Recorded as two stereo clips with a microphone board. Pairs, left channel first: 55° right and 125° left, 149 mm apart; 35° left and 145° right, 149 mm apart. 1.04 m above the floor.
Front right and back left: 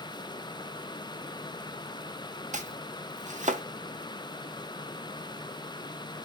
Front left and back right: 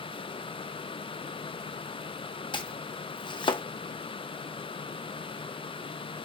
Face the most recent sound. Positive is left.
turn(degrees=90)